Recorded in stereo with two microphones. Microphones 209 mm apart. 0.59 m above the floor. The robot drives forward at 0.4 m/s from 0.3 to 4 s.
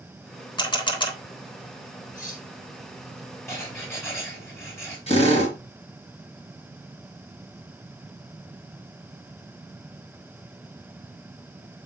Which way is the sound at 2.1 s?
45° left (ahead or behind).